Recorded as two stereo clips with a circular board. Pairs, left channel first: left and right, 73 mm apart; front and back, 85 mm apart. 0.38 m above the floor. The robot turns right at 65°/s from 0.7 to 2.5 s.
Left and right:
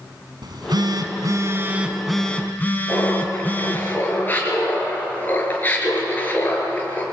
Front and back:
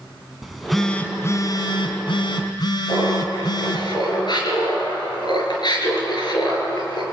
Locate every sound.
0.4 s a phone buzzing: 90° right, 2 m; by 3.9 s 25° left, 2 m
2.9 s laughter: 25° left, 5.5 m